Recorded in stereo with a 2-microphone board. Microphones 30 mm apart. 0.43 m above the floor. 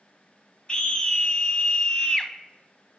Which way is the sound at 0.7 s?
35° left (ahead or behind).